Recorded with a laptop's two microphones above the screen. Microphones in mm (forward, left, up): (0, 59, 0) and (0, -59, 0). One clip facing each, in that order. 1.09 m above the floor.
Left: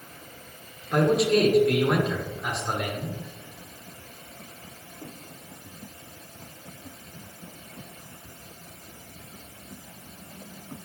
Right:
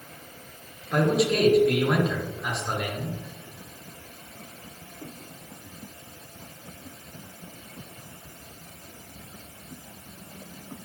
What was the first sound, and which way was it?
A man speaking, centre (ahead or behind).